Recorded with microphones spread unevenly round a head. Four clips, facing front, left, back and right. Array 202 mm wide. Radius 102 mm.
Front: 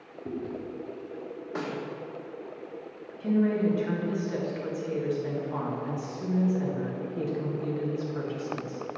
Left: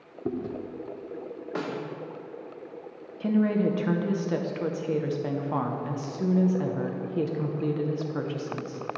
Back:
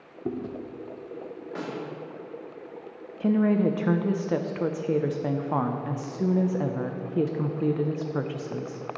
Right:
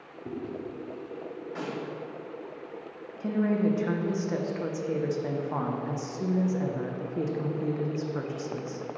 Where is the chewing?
130° left, 0.5 m.